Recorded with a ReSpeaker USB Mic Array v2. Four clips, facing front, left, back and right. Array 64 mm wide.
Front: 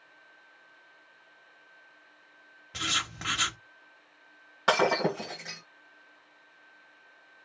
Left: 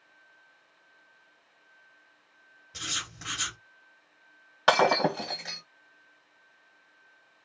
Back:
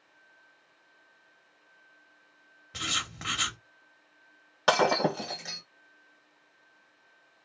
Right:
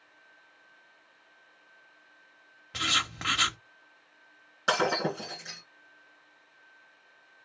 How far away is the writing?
About 0.7 m.